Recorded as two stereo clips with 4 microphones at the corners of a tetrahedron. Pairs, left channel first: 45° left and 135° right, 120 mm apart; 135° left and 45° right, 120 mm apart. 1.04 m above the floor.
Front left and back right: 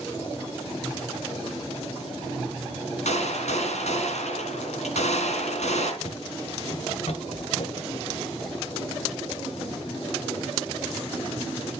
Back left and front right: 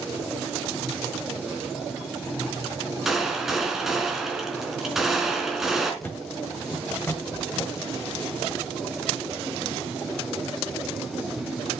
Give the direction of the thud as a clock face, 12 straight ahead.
10 o'clock.